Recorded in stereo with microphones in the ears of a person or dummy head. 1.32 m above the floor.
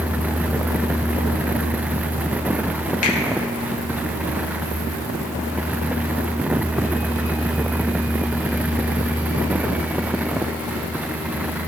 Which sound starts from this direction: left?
A finger snap, at 3.0 s.